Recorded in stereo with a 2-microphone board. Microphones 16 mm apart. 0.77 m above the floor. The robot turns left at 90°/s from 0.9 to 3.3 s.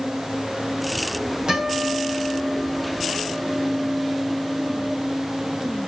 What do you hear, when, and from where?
1.5 s a guitar: 115° right, 3 m; by 4.9 s 85° left, 3 m